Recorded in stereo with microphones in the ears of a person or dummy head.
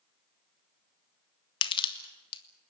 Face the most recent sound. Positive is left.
turn(degrees=30)  # may be behind; listen again after turning